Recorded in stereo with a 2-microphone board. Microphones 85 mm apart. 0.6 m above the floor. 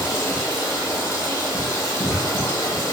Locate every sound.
0.0 s running water: 35° left (ahead or behind), 1.2 m